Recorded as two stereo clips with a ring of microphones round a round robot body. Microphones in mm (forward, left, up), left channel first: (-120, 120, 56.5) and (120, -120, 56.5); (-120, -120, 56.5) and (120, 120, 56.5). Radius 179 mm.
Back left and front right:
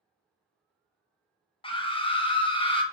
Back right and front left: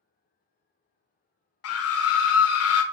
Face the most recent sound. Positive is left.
turn(degrees=-155)